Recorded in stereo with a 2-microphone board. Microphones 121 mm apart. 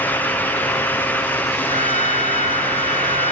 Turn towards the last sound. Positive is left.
turn(degrees=75)  # may be behind; listen again after turning